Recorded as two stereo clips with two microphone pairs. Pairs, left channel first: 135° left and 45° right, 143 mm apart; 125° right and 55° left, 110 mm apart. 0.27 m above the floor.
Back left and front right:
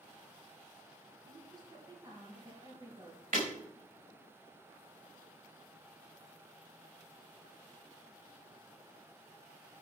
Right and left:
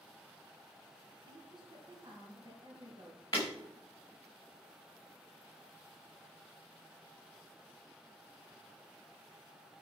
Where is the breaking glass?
65° right, 5.5 m.